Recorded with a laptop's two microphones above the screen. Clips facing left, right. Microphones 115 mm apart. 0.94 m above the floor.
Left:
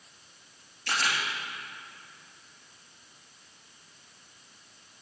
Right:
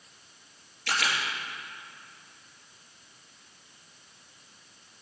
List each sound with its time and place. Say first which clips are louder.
0.9 s a camera shutter: even; 75° right (ahead or behind), 3 m